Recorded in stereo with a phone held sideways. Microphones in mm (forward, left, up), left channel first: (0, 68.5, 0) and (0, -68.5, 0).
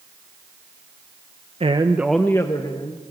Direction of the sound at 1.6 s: 45° right (ahead or behind).